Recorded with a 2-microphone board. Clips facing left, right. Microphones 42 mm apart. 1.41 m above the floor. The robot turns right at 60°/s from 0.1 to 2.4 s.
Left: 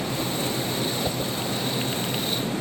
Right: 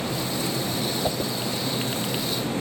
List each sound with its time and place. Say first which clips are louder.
1.0 s a whoosh: right 1 dB; 15° right (ahead or behind); by 1.3 s 35° right (ahead or behind)